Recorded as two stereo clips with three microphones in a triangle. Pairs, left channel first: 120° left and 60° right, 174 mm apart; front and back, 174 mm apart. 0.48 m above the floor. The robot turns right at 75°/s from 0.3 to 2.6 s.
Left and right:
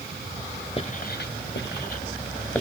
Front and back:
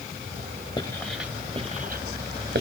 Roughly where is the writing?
Ahead left.